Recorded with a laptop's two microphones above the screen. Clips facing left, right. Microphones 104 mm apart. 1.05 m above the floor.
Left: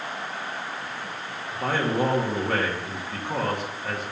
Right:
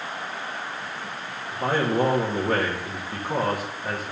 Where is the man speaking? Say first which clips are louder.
Right 2 dB; 5° right (ahead or behind), 1.4 m.